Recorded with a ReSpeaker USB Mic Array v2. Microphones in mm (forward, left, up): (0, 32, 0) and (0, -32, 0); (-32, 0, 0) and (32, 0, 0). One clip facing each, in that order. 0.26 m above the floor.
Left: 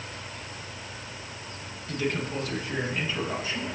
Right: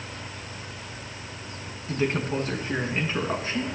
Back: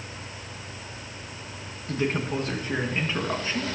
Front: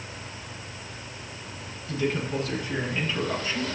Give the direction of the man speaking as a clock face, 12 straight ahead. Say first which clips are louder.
Right 3 dB, back 1 dB; 5 o'clock.